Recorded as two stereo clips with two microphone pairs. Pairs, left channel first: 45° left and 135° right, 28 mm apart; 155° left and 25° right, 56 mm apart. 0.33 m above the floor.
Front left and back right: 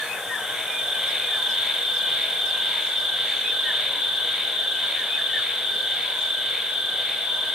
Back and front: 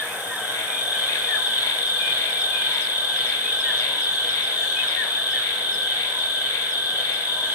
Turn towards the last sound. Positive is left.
turn(degrees=-80)